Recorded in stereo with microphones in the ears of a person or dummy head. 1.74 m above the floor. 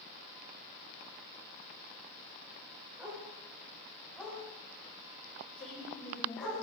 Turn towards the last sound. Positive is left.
turn(degrees=35)  # may be behind; listen again after turning